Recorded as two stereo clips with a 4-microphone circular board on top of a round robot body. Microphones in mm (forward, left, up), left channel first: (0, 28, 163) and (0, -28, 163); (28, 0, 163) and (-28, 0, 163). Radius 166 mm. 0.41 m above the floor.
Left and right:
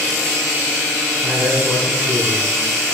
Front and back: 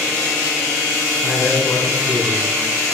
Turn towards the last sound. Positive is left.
turn(degrees=35)